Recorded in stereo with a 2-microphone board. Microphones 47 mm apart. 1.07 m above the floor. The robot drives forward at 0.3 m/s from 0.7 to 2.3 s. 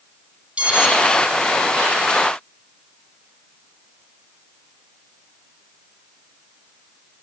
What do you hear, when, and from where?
0.6 s an alarm: 25° right (ahead or behind), 4 m